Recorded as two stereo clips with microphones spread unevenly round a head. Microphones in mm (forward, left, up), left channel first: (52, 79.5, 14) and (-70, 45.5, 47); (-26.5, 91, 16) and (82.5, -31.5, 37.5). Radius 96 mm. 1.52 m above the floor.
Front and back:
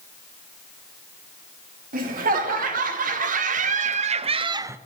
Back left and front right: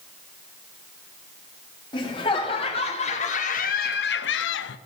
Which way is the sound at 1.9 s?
160° right.